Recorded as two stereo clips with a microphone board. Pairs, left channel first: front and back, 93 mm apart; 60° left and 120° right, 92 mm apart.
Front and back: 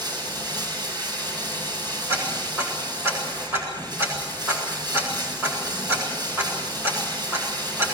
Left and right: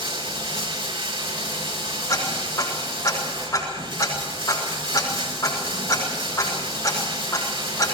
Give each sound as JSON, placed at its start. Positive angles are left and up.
{"t": 0.0, "sound": "running water", "azimuth_deg": -140, "distance_m": 6.5}
{"t": 2.1, "sound": "ticking", "azimuth_deg": 115, "distance_m": 8.0}